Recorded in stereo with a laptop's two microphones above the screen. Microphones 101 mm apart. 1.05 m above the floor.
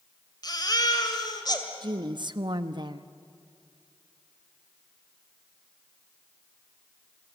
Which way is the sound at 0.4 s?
45° left (ahead or behind).